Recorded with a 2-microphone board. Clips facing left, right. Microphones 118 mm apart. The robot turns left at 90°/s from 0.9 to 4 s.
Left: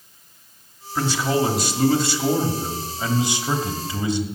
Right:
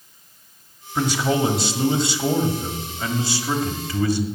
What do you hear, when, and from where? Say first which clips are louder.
0.9 s a man speaking: right 1 dB; 10° right (ahead or behind), 1.5 m; by 4.2 s 20° left (ahead or behind), 1.5 m